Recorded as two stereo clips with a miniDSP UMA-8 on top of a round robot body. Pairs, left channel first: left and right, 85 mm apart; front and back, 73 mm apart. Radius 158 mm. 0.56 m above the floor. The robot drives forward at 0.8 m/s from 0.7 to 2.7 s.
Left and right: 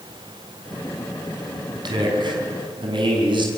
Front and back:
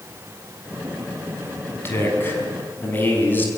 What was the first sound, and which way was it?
A man speaking, 60° right.